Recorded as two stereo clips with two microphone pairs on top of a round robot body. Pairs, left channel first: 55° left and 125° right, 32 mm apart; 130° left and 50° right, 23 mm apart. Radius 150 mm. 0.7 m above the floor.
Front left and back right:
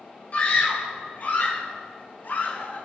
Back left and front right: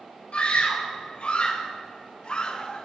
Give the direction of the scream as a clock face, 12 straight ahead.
9 o'clock.